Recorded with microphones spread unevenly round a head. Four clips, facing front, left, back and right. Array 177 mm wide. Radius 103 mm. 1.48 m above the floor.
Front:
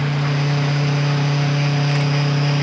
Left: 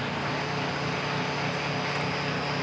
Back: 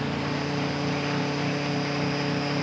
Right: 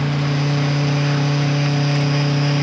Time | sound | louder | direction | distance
0.0 | a fan | right 9 dB, front 6 dB | 35° right | 1.4 m